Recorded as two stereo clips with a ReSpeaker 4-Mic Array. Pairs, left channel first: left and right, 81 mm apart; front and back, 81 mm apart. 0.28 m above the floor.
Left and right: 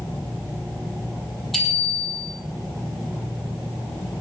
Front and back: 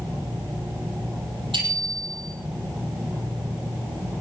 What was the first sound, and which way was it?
A bicycle bell, 175° left.